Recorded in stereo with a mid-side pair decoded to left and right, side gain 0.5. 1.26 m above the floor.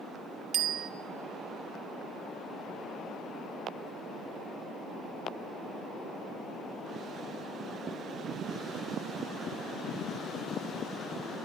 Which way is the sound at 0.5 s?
70° right.